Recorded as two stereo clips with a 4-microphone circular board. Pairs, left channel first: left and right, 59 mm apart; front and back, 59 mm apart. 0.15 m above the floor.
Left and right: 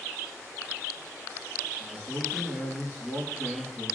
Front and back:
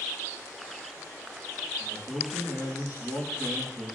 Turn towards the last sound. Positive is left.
turn(degrees=120)